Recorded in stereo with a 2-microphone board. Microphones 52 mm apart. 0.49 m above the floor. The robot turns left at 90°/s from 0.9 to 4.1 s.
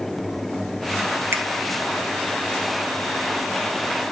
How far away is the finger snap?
About 1.9 m.